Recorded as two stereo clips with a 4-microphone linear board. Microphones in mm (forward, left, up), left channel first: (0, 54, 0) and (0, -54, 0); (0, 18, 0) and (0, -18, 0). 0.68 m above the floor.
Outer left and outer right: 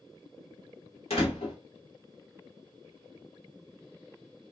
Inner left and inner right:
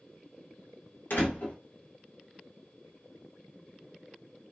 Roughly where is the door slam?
Left.